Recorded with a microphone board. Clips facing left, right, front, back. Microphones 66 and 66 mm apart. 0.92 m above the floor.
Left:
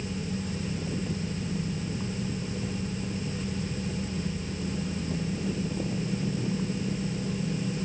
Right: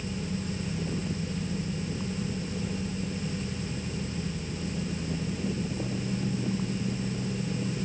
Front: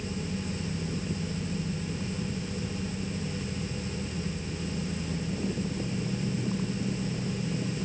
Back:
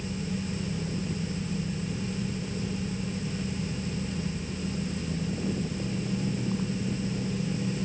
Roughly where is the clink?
No clink in this recording.